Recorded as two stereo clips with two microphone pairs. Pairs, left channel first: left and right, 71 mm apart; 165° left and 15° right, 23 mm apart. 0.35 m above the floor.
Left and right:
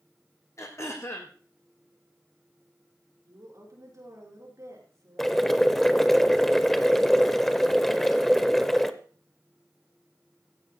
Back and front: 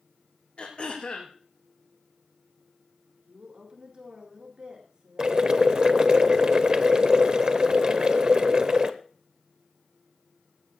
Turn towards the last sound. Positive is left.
turn(degrees=0)